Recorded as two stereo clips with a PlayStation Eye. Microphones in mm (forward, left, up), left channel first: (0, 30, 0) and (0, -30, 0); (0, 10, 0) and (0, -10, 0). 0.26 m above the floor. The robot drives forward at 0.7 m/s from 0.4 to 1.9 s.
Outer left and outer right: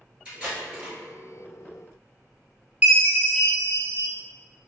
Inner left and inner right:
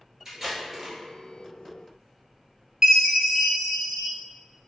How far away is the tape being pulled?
About 1.9 m.